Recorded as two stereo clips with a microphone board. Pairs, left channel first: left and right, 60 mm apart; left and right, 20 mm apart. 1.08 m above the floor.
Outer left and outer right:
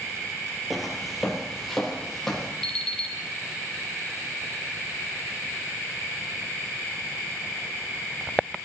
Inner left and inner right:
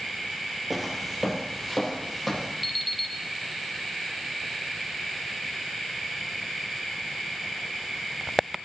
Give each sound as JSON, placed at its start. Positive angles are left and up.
{"t": 0.7, "sound": "footsteps", "side_deg": 0, "distance_m": 1.5}
{"t": 2.6, "sound": "an alarm clock", "side_deg": 10, "distance_m": 0.7}